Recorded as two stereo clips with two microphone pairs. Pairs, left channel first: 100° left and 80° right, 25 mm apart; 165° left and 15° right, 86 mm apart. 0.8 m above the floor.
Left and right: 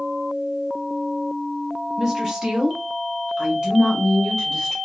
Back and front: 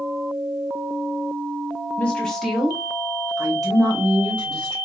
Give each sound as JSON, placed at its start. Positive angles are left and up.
{"t": 2.0, "sound": "a woman speaking", "azimuth_deg": -135, "distance_m": 1.2}